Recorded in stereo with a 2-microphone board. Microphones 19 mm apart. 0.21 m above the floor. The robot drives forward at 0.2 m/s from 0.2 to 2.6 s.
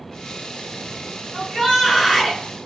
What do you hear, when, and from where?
1.3 s a shout: 20° left (ahead or behind), 1.7 m